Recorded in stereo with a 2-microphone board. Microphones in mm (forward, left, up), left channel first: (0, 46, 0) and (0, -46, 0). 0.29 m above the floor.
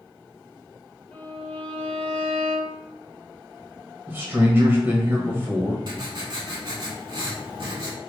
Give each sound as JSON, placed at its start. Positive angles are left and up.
{"t": 1.1, "sound": "a violin", "side_deg": 15, "distance_m": 1.2}
{"t": 4.1, "sound": "a man speaking", "side_deg": -20, "distance_m": 1.0}
{"t": 5.9, "sound": "writing", "side_deg": -55, "distance_m": 0.9}